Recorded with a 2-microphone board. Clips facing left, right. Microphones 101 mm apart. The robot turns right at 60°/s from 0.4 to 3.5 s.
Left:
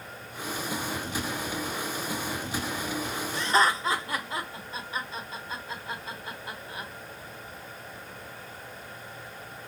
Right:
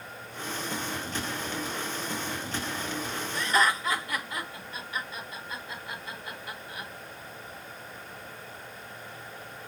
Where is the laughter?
25° left (ahead or behind), 1.1 m.